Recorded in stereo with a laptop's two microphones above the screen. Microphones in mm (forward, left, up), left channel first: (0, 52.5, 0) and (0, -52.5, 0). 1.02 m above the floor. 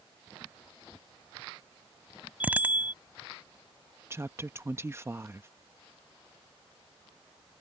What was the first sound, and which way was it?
A bicycle bell, 15° right (ahead or behind).